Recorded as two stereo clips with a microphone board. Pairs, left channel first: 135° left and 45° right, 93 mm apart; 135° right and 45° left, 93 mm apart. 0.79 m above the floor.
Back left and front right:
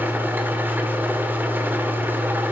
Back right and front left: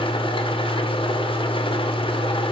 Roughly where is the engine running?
Behind right.